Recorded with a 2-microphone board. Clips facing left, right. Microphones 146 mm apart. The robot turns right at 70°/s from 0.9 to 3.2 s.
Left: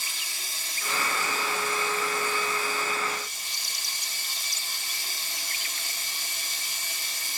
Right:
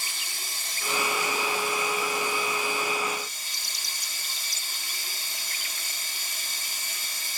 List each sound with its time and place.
0.0 s running water: 80° right, 3 m; by 7.4 s 80° left, 3 m